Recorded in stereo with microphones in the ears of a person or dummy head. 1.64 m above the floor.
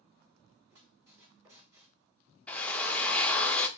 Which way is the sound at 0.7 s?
20° right (ahead or behind).